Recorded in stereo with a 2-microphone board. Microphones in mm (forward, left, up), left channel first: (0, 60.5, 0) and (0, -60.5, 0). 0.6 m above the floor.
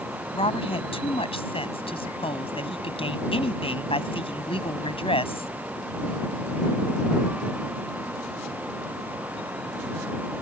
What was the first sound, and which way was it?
A woman speaking, 50° left (ahead or behind).